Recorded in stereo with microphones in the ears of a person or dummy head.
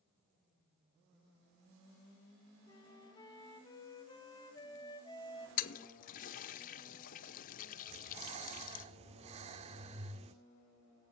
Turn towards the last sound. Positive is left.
turn(degrees=-35)  # may be behind; listen again after turning